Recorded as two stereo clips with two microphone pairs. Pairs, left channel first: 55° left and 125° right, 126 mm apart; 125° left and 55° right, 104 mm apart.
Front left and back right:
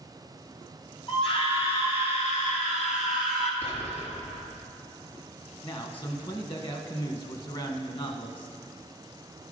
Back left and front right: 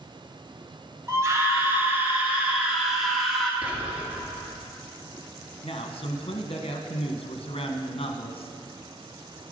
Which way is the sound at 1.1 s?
5° left.